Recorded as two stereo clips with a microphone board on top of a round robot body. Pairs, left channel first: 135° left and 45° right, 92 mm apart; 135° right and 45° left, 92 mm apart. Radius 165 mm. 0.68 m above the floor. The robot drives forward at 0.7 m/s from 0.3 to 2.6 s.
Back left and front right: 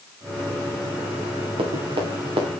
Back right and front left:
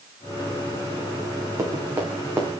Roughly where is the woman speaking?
No woman speaking in this recording.